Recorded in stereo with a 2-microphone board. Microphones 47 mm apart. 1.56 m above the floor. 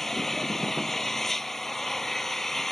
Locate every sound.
0.0 s an engine running: 5° left (ahead or behind)